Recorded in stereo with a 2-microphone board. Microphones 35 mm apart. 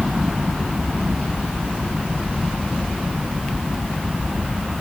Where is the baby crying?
No baby crying in this recording.